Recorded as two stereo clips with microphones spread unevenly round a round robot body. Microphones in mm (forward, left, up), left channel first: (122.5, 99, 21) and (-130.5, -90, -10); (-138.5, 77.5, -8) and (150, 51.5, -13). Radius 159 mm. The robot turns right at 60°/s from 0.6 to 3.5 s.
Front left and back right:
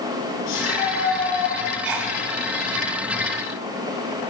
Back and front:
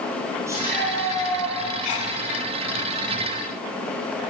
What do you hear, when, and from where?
0.5 s a shout: 75° left, 7.5 m; by 1.6 s 135° left, 7.5 m
1.8 s a sneeze: 150° right, 2.5 m; by 2.2 s 130° right, 2.5 m